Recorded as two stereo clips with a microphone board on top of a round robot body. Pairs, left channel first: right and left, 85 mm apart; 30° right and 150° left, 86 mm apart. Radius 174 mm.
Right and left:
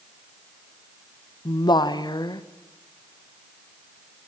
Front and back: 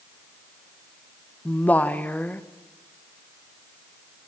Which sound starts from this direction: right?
A woman speaking, at 1.4 s.